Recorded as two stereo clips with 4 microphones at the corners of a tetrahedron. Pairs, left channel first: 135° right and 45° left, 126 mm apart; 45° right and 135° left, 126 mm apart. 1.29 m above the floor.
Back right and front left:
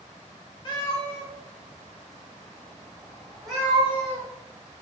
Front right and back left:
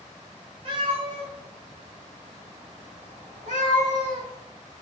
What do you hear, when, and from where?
0.7 s a cat meowing: straight behind, 1.8 m; by 4.3 s 130° left, 3 m